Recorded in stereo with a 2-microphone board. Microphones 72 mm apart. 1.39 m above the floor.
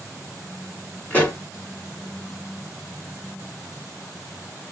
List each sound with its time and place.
1.1 s a pop: 25° left (ahead or behind), 1.9 m